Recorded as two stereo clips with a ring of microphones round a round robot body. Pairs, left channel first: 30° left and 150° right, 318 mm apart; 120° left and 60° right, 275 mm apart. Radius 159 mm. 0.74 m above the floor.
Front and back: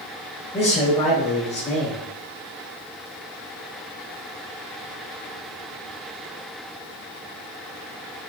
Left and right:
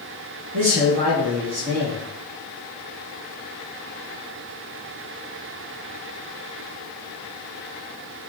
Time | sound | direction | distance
0.5 | a man speaking | 50° right | 4 m